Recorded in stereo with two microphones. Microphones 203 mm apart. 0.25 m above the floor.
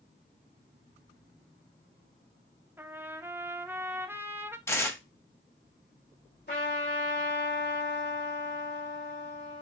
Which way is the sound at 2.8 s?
10° right (ahead or behind).